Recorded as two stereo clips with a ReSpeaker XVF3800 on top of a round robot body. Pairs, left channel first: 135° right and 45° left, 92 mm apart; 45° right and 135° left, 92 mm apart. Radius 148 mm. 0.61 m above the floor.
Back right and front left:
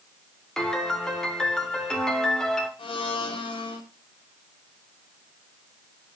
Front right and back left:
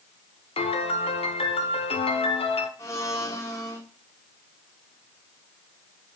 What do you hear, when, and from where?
0.6 s a piano: 50° right, 1.0 m
2.8 s a blender: 105° right, 1.9 m